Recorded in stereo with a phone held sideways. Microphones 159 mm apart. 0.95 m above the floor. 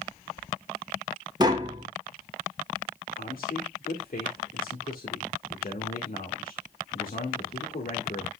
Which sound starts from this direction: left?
A man speaking, at 3.2 s.